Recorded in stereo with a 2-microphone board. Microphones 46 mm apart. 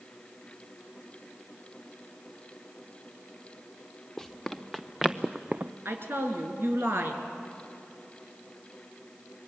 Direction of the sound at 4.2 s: 5° left (ahead or behind).